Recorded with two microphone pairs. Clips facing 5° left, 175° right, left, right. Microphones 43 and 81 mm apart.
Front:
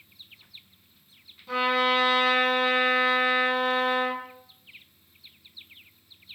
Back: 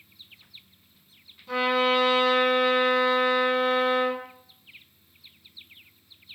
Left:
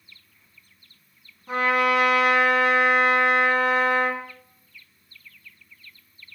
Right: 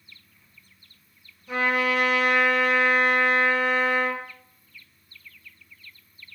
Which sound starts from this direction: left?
A trumpet, at 1.5 s.